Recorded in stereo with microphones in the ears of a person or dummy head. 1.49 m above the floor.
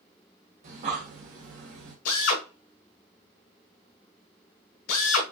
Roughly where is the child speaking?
No child speaking in this recording.